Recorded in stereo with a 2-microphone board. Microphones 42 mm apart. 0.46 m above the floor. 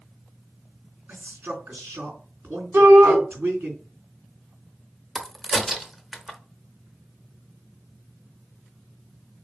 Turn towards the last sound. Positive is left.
turn(degrees=-5)  # may be behind; listen again after turning